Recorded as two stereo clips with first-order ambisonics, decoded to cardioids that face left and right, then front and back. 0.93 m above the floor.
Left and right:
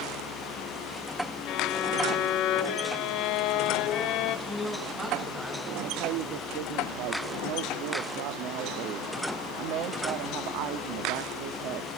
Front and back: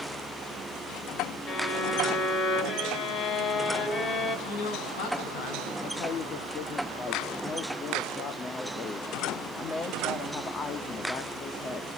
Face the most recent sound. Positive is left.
turn(degrees=-65)